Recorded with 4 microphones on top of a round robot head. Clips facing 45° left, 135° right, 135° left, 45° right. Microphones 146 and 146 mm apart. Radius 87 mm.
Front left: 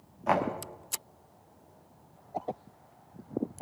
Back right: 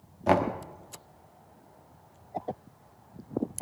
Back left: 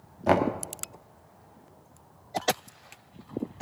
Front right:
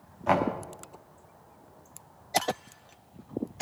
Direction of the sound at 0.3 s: Straight behind.